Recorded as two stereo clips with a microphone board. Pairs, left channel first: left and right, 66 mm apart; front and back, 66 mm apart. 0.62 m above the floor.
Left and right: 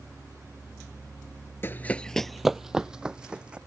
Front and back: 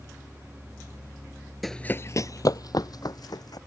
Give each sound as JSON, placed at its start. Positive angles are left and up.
{"t": 1.6, "sound": "running footsteps", "azimuth_deg": 95}